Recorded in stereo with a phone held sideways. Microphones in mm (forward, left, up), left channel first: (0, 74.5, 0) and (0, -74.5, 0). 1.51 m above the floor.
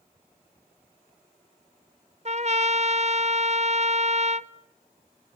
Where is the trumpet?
50° right (ahead or behind), 0.8 m.